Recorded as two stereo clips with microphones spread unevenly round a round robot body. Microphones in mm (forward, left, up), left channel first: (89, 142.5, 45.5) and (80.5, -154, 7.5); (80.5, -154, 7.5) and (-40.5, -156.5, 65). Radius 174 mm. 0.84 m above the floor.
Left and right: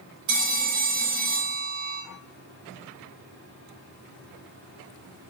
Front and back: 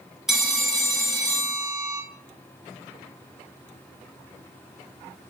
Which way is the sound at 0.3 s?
80° right.